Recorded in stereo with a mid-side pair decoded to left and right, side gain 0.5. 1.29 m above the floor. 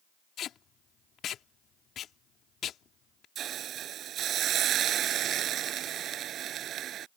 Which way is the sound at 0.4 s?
60° left.